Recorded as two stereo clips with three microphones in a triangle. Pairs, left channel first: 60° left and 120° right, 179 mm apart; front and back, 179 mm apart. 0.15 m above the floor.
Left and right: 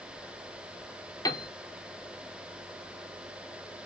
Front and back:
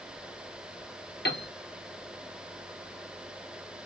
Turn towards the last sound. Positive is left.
turn(degrees=-10)